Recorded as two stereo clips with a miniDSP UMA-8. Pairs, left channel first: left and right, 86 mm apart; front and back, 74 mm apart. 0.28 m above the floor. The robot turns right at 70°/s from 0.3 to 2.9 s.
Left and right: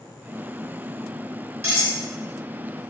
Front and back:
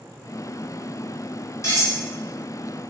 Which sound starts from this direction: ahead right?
Cutlery clinking, at 1.6 s.